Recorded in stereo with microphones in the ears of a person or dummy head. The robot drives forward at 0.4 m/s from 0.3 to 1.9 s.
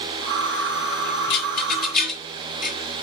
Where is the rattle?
50° left (ahead or behind), 1.6 m; by 2.8 s 45° left (ahead or behind), 1.7 m.